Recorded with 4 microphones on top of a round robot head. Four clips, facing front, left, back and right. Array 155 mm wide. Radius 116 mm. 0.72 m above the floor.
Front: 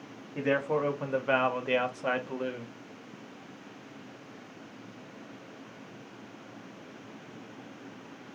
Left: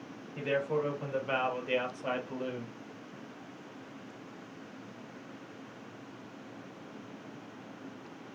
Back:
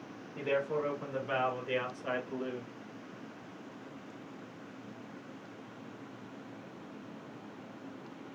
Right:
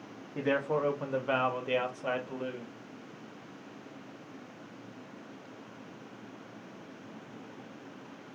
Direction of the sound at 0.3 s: 45° right.